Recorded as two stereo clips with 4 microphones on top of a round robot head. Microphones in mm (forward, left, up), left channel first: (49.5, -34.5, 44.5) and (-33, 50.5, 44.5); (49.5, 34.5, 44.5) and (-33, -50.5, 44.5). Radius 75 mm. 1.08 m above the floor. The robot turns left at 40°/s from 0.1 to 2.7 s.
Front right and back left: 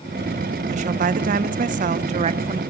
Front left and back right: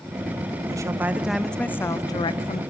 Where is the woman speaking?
165° left, 0.5 m; by 2.6 s 85° left, 0.5 m.